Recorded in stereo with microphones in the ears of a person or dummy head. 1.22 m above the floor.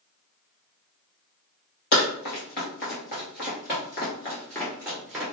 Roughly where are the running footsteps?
Left.